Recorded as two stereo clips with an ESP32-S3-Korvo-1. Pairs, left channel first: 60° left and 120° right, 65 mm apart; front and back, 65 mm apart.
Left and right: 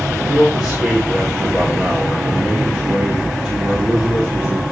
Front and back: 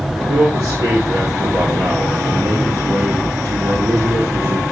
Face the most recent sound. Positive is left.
turn(degrees=160)